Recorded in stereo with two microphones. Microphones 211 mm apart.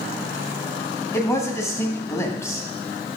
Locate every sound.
1.1 s a man speaking: 15° left (ahead or behind), 1.9 m